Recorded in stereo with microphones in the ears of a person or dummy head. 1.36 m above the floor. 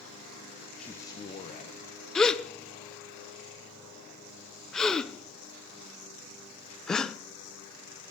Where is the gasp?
Centre (ahead or behind), 0.5 m.